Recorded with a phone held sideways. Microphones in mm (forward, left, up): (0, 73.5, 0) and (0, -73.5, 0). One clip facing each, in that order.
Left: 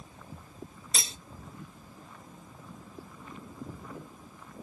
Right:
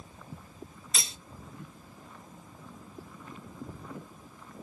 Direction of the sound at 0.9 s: 35° left (ahead or behind).